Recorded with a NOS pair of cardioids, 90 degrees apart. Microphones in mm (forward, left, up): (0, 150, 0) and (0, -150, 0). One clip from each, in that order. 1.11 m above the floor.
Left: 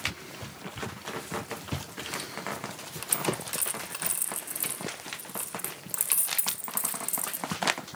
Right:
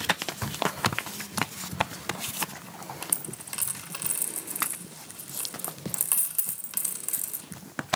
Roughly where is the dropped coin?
Ahead.